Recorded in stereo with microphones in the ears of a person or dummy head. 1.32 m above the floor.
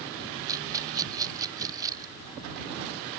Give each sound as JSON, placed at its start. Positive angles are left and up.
{"t": 0.5, "sound": "a rattle", "side_deg": -20}